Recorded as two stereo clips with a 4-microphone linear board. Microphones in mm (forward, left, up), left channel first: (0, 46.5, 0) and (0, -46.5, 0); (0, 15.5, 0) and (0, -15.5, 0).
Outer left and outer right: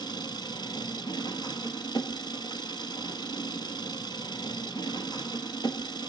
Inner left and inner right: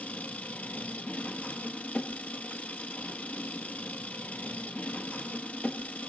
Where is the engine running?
55° left (ahead or behind), 1.0 m.